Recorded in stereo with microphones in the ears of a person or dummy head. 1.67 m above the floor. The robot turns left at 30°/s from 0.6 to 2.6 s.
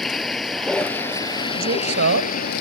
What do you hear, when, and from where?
0.0 s a vehicle: 175° left; by 2.6 s 115° left
1.5 s a man speaking: 55° right (ahead or behind); by 2.4 s 80° right